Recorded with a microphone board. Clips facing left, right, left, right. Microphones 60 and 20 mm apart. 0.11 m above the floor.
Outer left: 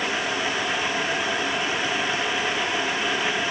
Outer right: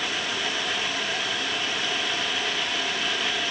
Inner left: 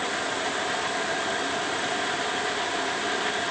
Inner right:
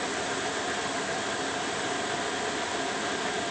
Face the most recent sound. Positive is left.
No sound to turn to.